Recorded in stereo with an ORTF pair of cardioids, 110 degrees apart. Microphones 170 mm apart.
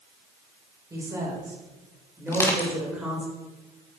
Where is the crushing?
15° left, 2.5 m.